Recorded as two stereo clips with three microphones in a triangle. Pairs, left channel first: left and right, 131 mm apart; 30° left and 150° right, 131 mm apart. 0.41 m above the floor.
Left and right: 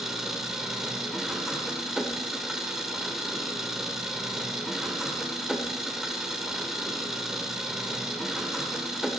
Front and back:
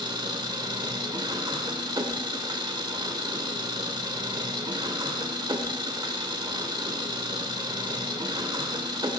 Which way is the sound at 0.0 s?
175° right.